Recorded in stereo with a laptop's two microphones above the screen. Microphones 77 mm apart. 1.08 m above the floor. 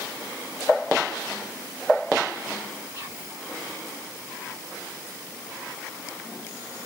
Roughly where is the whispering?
Right.